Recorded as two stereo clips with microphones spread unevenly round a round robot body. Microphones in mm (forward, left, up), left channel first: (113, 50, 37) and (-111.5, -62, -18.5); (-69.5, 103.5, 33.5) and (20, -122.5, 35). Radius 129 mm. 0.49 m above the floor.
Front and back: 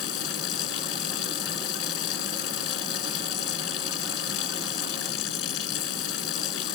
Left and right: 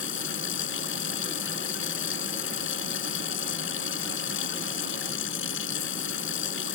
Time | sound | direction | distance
0.0 | running water | 65° left | ?